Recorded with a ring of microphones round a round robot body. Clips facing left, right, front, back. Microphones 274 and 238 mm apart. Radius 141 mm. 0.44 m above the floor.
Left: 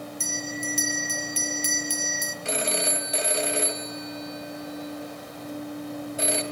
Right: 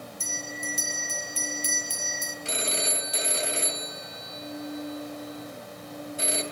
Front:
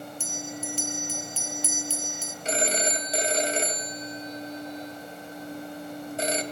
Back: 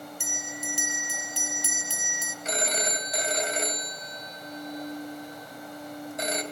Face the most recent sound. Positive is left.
turn(degrees=60)